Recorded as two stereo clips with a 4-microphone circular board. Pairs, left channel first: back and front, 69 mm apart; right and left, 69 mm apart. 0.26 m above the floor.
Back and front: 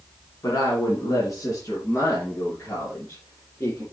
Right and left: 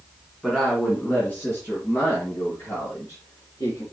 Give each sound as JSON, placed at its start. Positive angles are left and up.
{"t": 0.4, "sound": "a woman speaking", "azimuth_deg": -165, "distance_m": 2.5}